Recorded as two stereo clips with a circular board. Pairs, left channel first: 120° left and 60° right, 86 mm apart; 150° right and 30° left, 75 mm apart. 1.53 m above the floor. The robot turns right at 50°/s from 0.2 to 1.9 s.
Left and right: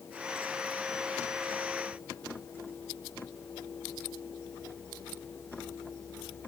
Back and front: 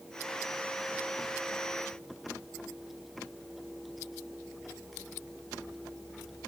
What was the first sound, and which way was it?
Only background noise.